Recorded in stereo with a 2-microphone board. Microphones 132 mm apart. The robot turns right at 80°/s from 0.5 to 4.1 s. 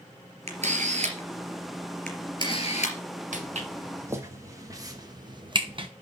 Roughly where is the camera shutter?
Right.